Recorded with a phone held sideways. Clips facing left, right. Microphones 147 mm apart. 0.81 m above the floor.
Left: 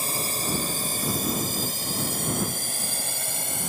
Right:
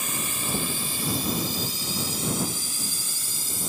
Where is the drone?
35° left (ahead or behind); by 3.7 s 75° left (ahead or behind).